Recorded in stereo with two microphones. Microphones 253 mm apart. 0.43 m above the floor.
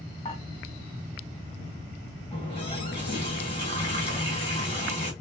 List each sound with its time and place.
0.2 s dishes clattering: 25° left (ahead or behind), 1.7 m
2.3 s a running tap: 20° left (ahead or behind), 1.7 m